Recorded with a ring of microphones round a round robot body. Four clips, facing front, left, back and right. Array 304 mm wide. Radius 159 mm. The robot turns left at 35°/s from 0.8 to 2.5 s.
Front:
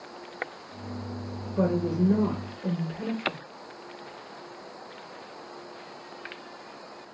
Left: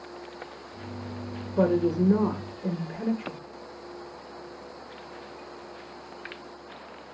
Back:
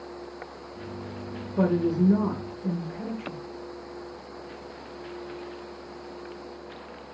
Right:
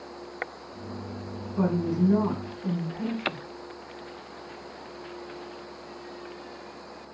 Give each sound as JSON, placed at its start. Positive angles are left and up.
{"t": 1.6, "sound": "a woman speaking", "azimuth_deg": 115, "distance_m": 1.5}